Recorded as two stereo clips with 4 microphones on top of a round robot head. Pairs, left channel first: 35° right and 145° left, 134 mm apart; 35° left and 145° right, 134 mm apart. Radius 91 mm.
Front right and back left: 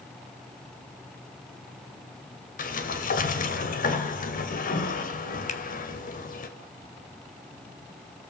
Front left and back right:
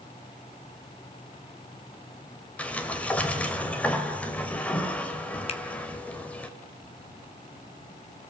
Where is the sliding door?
45° right, 2.5 m.